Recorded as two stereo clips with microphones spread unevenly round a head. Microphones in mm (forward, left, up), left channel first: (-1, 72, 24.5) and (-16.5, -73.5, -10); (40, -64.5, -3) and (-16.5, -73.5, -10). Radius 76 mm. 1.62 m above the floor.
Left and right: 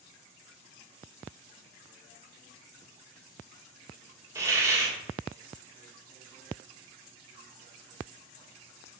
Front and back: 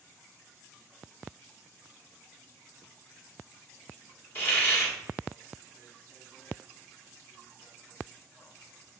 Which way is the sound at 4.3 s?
15° right.